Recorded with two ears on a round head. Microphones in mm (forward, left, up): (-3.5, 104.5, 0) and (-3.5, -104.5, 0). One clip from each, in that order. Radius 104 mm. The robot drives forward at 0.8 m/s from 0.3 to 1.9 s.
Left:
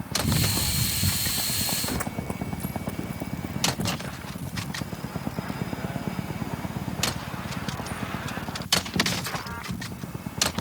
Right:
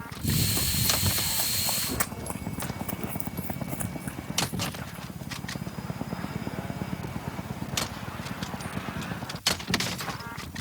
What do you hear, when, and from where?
0.2 s running footsteps: 15° right (ahead or behind); by 5.0 s 50° right (ahead or behind)